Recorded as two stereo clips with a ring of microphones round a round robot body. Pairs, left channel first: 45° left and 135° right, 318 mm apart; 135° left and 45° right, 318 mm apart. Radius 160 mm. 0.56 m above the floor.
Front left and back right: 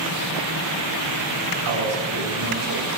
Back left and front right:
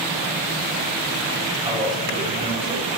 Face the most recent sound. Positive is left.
turn(degrees=-115)